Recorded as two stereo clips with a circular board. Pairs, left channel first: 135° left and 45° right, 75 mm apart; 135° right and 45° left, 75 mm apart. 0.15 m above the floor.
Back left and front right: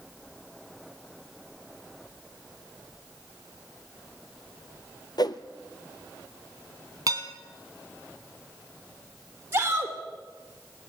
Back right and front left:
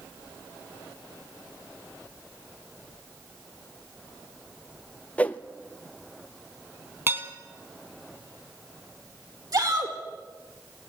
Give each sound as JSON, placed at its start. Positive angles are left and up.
{"t": 5.2, "sound": "a whoosh", "azimuth_deg": 150, "distance_m": 1.1}
{"t": 7.1, "sound": "dishes clattering", "azimuth_deg": -10, "distance_m": 3.0}
{"t": 9.5, "sound": "a shout", "azimuth_deg": 15, "distance_m": 5.0}